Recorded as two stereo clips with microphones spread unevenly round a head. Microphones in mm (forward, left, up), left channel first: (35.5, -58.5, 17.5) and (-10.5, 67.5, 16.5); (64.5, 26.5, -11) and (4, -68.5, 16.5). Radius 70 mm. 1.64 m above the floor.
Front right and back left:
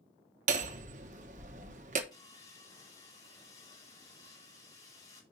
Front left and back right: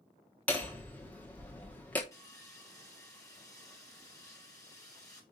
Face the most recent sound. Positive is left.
turn(degrees=-5)